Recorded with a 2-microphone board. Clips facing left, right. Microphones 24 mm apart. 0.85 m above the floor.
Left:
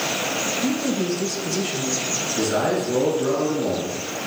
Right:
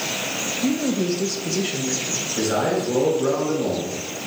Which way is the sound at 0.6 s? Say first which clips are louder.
Right 4 dB; 15° right (ahead or behind).